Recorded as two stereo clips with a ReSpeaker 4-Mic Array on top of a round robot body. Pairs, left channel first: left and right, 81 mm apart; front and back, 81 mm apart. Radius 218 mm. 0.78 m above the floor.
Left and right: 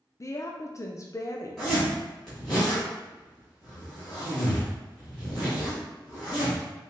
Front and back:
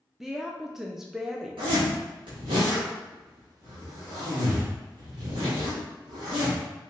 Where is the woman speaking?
100° left, 0.6 m.